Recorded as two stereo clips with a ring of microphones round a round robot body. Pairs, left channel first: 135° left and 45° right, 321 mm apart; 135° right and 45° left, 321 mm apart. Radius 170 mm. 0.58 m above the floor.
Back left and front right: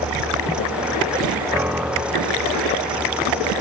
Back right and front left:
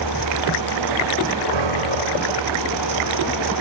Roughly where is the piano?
Ahead left.